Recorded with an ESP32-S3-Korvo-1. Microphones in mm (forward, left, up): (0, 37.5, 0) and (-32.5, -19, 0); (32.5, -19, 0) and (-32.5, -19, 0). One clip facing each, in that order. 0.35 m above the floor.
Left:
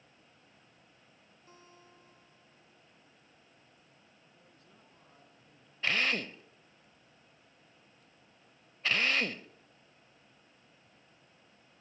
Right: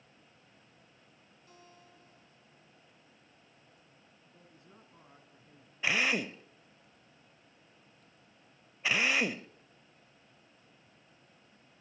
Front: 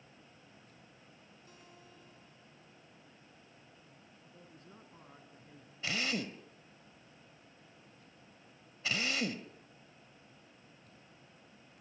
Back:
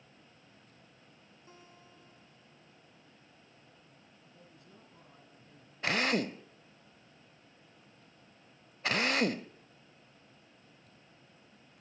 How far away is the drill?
About 0.6 m.